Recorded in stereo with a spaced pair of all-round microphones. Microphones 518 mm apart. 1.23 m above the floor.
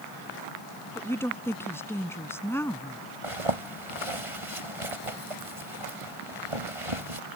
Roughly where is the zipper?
Right.